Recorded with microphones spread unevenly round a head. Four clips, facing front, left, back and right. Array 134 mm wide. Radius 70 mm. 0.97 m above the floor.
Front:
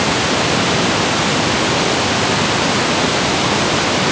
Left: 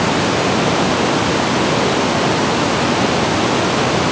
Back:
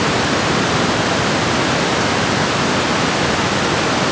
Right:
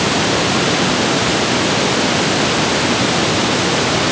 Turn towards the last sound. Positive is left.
No sound to turn to.